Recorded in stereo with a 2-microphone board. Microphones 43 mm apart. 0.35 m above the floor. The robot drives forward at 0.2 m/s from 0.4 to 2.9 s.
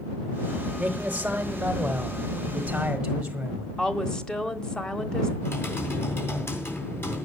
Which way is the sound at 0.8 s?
30° right (ahead or behind).